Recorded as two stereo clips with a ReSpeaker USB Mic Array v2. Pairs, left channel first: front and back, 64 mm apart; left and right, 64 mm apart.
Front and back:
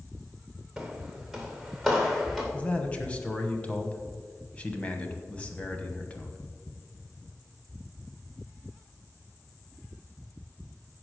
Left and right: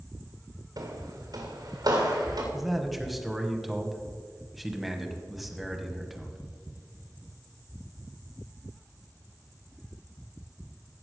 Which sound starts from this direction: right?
Footsteps, at 0.8 s.